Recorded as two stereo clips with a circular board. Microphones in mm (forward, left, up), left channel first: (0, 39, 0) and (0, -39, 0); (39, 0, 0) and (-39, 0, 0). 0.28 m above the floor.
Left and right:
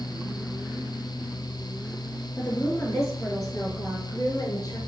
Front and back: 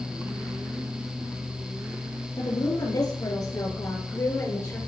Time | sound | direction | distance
2.4 | a woman speaking | 25° left | 5.5 m